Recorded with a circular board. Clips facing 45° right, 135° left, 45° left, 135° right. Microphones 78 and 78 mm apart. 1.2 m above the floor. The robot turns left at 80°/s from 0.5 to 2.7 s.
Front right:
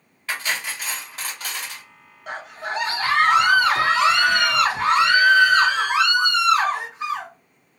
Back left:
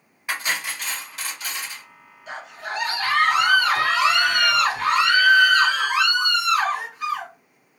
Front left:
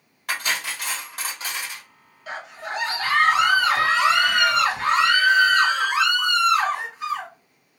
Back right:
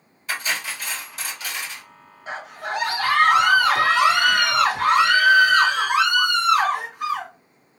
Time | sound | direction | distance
0.3 | cutlery clinking | 60° left | 1.3 m
2.3 | a scream | 75° right | 1.1 m